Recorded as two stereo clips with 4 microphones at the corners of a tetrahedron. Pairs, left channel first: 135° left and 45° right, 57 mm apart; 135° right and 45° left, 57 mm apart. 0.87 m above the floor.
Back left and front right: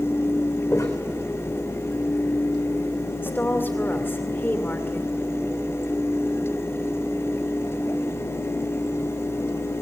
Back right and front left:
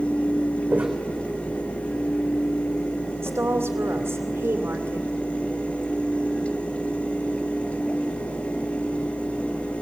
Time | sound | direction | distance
0.7 | footsteps | 105° left | 3.5 m
3.2 | a woman speaking | 85° left | 2.5 m